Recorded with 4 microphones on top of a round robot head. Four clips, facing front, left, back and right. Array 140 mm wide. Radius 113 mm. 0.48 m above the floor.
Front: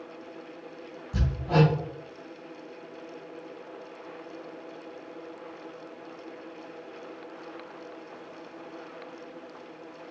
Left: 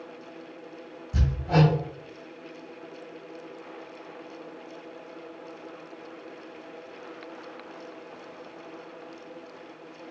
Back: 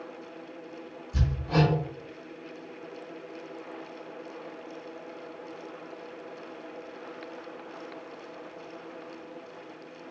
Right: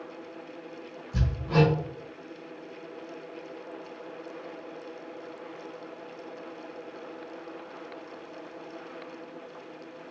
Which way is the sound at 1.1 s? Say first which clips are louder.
Left 1 dB, front 3 dB; 60° left.